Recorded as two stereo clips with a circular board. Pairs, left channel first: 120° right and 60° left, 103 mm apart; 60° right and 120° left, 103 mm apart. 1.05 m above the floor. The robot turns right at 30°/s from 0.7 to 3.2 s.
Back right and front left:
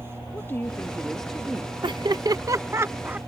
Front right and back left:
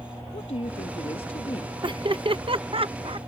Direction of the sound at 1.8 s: 90° left.